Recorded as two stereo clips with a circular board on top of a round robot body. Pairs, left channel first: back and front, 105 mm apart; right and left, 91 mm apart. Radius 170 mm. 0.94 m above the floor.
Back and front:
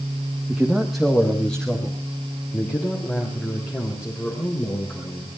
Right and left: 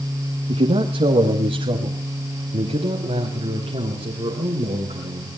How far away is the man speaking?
About 1.6 m.